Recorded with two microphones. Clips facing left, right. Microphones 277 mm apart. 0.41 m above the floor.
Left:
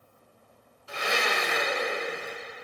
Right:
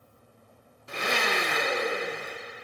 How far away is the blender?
About 0.8 m.